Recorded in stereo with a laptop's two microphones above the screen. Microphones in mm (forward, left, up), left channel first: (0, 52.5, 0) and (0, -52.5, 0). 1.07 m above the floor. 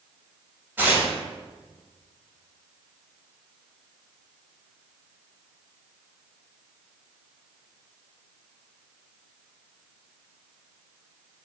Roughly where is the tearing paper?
Centre.